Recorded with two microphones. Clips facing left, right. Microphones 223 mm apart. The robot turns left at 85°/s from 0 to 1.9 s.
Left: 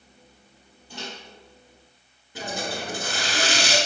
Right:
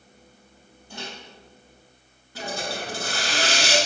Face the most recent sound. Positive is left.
turn(degrees=20)  # may be behind; listen again after turning